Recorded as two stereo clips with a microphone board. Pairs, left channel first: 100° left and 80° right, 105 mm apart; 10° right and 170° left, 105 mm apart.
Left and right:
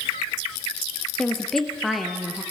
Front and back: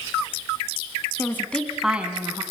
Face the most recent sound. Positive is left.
turn(degrees=-160)